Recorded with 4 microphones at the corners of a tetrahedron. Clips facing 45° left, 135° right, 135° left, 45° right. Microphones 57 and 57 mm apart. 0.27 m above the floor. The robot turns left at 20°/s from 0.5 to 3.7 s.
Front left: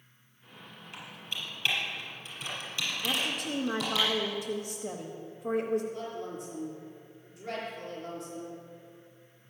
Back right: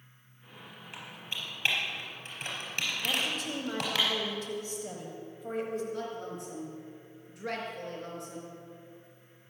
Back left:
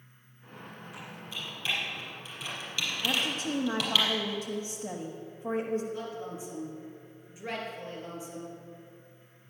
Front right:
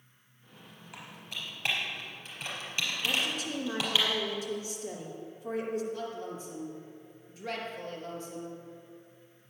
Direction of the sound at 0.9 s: 65° right.